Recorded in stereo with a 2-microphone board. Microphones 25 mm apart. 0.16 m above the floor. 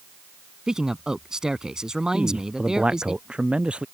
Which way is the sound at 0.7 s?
25° right (ahead or behind).